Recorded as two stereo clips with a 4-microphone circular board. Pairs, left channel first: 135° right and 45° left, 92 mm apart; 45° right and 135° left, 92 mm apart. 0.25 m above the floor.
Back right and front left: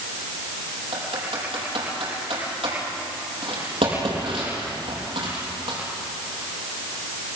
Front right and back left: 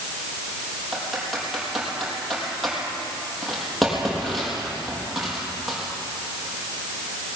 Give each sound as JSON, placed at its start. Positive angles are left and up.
{"t": 0.9, "sound": "typing on a keyboard", "azimuth_deg": 45, "distance_m": 6.0}